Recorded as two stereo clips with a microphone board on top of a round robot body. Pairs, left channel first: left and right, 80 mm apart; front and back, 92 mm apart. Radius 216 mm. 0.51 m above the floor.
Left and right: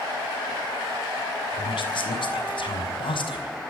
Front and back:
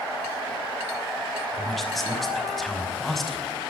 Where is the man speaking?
90° left, 5 m.